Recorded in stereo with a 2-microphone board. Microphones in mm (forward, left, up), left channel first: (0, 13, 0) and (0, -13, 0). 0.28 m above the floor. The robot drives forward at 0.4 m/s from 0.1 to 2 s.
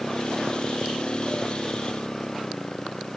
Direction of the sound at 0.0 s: 25° left (ahead or behind).